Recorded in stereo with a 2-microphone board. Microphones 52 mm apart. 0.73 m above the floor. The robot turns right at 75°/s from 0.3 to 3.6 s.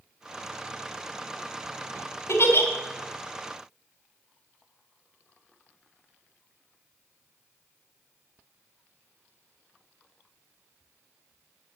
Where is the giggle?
70° left (ahead or behind), 2 m; by 2.7 s 40° left (ahead or behind), 2 m.